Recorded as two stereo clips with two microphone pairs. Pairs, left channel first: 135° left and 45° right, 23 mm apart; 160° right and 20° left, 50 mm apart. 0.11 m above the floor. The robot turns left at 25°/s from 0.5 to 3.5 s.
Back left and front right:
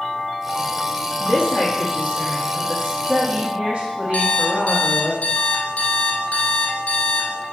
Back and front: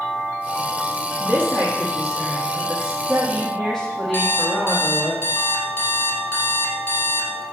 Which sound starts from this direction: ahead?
A woman speaking, at 1.2 s.